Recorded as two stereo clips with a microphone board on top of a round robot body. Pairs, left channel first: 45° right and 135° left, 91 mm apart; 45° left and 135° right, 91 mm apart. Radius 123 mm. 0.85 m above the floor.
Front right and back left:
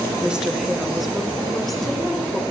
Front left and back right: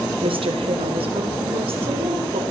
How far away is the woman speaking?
About 1.5 m.